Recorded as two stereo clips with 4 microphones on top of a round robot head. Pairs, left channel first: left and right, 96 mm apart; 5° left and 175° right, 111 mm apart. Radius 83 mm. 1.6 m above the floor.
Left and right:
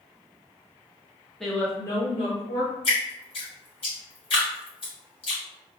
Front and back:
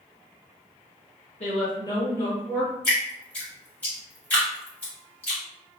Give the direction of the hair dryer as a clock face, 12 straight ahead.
No hair dryer in this recording.